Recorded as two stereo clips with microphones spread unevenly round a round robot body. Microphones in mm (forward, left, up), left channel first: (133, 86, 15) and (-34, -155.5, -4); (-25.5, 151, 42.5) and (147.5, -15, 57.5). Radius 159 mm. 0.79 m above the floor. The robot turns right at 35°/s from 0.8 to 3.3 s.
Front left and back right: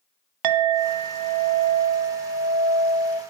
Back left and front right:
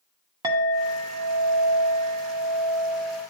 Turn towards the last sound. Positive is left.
turn(degrees=-35)